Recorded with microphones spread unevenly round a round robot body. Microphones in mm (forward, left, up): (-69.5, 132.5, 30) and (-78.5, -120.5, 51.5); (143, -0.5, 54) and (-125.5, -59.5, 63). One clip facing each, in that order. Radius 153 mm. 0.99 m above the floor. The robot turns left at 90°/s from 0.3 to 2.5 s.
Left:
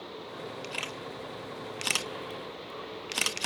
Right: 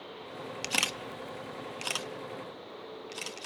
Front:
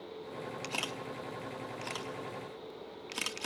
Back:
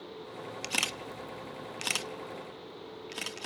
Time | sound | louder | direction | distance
0.6 | a camera shutter | right 1 dB, even | 100° right | 0.8 m